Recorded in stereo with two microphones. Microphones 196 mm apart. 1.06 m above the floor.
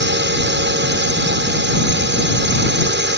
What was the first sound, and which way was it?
A drone, 65° right (ahead or behind).